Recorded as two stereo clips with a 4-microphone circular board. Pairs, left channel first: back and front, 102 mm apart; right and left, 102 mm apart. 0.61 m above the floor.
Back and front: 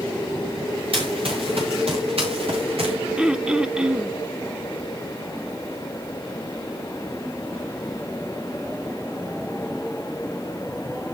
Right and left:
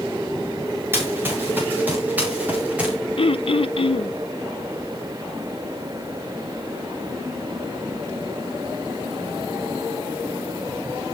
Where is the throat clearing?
80° right, 0.5 m.